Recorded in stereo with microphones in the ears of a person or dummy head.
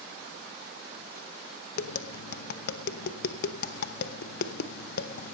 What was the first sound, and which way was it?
Tapping, 60° left (ahead or behind).